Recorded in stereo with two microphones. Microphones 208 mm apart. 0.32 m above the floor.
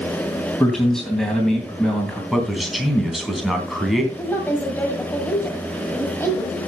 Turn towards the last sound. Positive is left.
turn(degrees=10)  # may be behind; listen again after turning